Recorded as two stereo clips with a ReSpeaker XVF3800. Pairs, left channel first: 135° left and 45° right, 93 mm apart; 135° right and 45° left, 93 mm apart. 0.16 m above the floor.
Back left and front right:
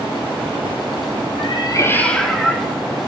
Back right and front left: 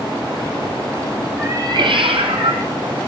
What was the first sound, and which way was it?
A cat meowing, 115° left.